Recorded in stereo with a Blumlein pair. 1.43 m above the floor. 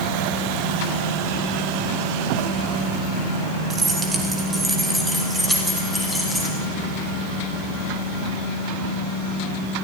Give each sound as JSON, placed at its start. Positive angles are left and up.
{"t": 3.7, "sound": "keys jangling", "azimuth_deg": -20, "distance_m": 4.0}